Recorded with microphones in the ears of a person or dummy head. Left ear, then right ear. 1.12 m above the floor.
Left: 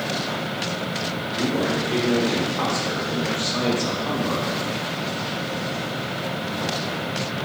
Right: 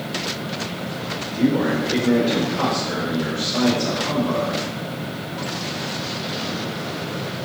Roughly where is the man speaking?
Left.